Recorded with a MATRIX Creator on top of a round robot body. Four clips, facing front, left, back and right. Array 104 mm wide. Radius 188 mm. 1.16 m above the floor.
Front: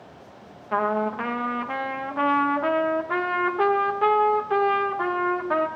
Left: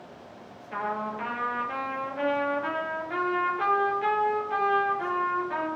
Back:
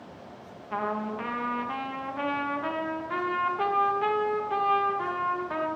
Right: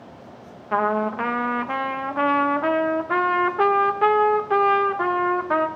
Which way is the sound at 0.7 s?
65° right.